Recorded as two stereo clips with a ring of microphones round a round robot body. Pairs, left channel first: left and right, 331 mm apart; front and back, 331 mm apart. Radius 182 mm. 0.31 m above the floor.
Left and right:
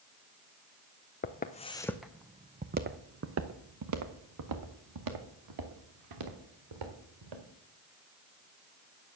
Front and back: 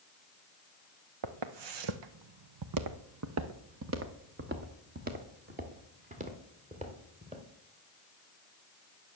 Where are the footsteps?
150° left, 0.9 m; by 7.4 s 105° right, 3 m.